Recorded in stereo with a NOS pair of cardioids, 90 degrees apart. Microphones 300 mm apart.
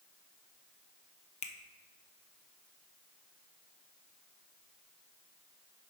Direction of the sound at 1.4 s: 20° left.